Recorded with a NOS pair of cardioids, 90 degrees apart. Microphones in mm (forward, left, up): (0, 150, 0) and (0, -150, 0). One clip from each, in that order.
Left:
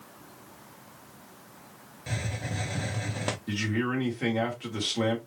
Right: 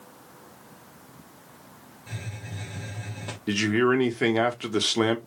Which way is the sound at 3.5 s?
50° right.